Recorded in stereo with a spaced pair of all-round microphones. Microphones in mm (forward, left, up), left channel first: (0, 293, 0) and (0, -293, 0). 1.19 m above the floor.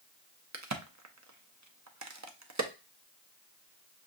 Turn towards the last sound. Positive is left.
turn(degrees=-30)  # may be behind; listen again after turning